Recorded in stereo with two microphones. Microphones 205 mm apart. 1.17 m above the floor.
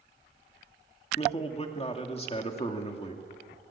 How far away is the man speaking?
About 2.5 m.